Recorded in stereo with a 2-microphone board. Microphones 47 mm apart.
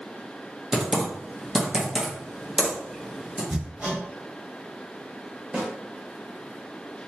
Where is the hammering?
25° right (ahead or behind), 1.9 m.